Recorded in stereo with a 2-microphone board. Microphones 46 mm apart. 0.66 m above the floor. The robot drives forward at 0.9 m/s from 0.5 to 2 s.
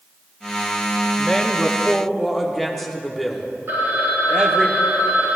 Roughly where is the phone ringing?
Right.